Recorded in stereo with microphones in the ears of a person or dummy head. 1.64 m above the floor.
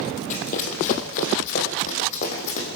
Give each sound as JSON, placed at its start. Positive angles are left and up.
{"t": 0.3, "sound": "running footsteps", "side_deg": 45, "distance_m": 4.0}